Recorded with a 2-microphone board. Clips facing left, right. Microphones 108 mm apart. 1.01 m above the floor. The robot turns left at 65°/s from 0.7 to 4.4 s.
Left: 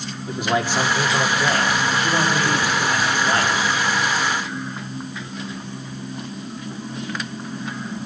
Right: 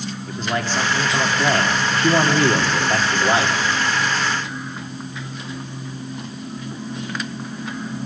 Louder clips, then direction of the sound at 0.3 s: Left 3 dB; 10° left.